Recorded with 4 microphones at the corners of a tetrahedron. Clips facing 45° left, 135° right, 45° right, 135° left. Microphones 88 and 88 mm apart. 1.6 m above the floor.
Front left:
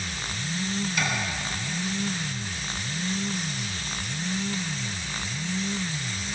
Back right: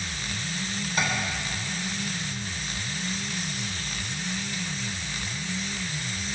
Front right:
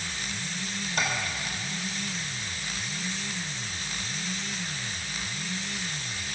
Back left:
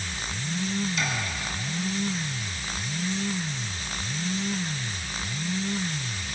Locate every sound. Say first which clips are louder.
1.0 s tapping: back right 3 dB, front right 1 dB; 80° right, 3 m